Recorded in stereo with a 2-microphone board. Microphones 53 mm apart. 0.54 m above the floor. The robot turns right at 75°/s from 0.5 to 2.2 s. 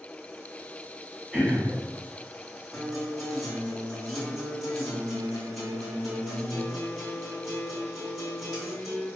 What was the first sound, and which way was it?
Throat clearing, 10° right.